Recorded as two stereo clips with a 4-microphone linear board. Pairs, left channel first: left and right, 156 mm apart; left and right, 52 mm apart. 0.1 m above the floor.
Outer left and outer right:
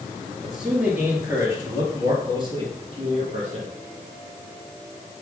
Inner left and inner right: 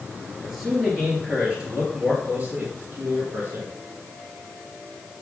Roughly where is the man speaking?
Centre.